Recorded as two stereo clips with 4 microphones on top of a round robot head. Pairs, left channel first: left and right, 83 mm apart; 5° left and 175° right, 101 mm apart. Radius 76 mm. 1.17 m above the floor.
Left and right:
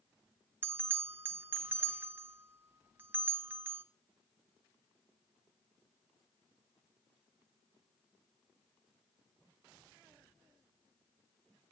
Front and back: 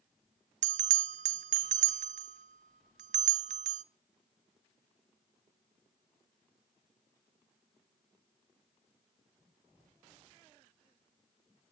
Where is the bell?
165° right, 0.6 m.